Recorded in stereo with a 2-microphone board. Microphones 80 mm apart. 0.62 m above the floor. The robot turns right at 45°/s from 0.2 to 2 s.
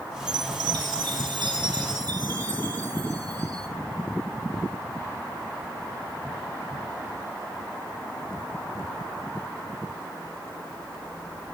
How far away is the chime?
About 3.5 m.